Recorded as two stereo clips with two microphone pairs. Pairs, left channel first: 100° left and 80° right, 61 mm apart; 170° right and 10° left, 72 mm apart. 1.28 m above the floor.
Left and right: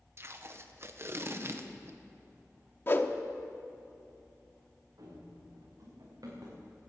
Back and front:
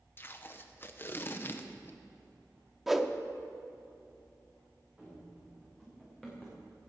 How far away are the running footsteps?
About 7 m.